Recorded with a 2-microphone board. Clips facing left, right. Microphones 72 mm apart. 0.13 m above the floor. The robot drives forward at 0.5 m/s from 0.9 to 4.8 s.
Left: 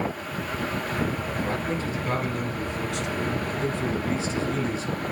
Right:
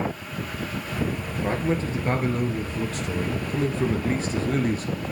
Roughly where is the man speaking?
Right.